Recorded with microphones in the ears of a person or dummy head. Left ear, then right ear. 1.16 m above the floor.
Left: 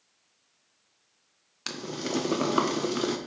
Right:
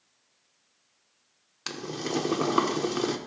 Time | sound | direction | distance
1.7 | boiling | 5° left (ahead or behind) | 0.8 m